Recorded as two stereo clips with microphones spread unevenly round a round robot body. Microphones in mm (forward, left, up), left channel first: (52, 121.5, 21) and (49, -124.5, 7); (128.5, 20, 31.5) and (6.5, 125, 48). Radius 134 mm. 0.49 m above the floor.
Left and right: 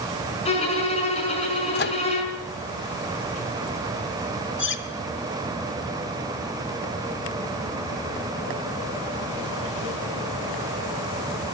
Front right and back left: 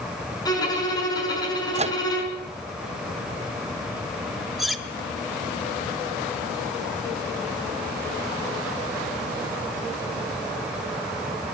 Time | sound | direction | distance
0.5 | a violin | 25° left | 5 m
1.8 | a microwave | 110° left | 0.7 m
4.6 | cutlery clinking | 50° left | 1.2 m